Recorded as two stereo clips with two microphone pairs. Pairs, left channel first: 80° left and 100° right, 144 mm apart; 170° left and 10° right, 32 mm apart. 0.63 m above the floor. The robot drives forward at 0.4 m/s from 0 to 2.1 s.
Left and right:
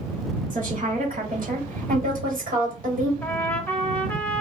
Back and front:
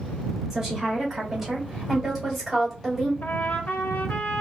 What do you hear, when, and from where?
0.5 s a woman speaking: 80° right, 2.5 m; by 3.1 s 95° right, 2.5 m
3.2 s a trumpet: 155° left, 0.6 m